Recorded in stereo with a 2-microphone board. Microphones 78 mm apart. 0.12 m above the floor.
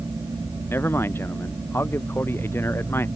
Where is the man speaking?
30° left (ahead or behind).